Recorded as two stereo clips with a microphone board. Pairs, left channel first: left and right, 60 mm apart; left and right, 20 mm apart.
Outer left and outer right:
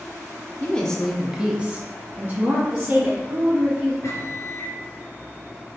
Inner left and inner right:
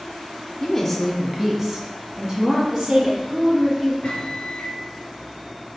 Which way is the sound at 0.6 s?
20° left (ahead or behind).